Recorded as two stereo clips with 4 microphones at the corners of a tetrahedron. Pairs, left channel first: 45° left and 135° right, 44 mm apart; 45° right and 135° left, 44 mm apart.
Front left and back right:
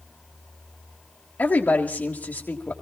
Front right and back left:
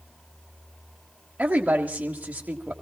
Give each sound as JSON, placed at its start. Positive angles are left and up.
{"t": 1.4, "sound": "a woman speaking", "azimuth_deg": 80, "distance_m": 1.5}